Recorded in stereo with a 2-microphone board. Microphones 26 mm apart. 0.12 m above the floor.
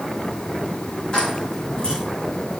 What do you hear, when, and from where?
1.1 s keys jangling: 40° left (ahead or behind), 8.5 m